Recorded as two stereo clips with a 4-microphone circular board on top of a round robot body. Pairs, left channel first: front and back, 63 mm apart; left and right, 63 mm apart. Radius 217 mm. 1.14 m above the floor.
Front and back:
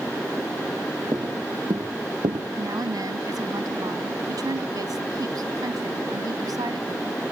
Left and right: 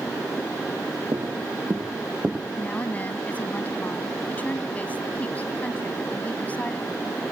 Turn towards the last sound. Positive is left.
turn(degrees=160)